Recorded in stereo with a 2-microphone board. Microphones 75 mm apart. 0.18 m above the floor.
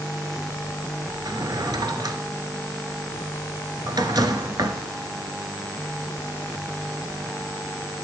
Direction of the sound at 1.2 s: 70° right (ahead or behind).